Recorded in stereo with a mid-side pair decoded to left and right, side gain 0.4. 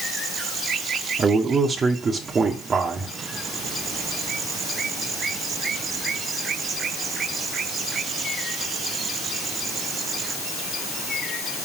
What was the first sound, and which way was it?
A man speaking, 50° right.